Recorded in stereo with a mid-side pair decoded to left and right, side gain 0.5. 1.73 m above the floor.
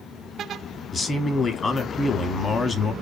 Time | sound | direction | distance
0.9 | a man speaking | 35° left | 0.9 m